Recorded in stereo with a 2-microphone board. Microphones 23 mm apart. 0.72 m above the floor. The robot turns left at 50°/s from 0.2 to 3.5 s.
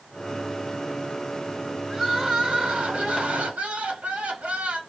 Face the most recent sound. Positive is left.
turn(degrees=-105)